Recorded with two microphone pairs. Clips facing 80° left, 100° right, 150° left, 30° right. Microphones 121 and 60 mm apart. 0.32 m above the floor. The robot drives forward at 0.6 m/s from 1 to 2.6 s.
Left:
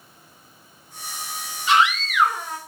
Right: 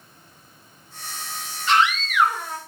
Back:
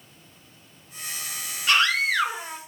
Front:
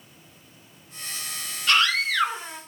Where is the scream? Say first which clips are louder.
Left 1 dB, even; 160° left, 1.0 m; by 2.6 s 170° left, 1.2 m.